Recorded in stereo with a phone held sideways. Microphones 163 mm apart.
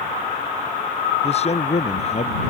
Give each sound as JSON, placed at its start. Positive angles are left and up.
{"t": 1.2, "sound": "a man speaking", "side_deg": 40}